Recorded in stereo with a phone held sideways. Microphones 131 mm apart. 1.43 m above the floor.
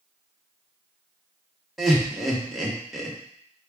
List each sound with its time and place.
1.8 s laughter: centre (ahead or behind), 1.1 m